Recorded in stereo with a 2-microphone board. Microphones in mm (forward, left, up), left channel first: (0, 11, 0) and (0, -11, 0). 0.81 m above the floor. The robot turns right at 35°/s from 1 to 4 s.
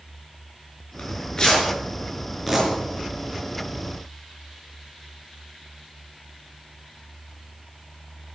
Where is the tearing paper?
55° left (ahead or behind), 5.5 m; by 2.7 s 5° right (ahead or behind), 5.5 m.